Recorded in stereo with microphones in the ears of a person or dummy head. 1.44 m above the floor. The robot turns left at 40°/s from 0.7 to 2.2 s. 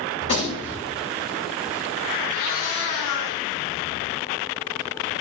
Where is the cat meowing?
45° left (ahead or behind), 1.9 m.